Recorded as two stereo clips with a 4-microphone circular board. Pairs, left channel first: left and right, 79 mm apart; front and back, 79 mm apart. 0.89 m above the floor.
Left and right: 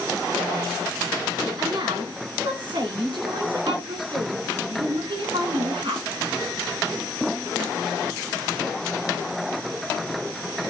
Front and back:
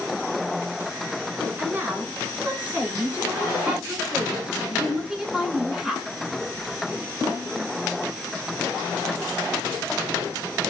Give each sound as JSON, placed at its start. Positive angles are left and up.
{"t": 1.6, "sound": "a woman speaking", "azimuth_deg": -115, "distance_m": 8.5}